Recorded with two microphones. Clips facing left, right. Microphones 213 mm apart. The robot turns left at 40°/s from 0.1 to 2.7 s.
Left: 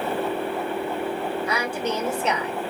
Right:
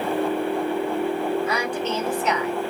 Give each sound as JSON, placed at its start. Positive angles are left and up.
{"t": 1.5, "sound": "a woman speaking", "azimuth_deg": 180, "distance_m": 1.0}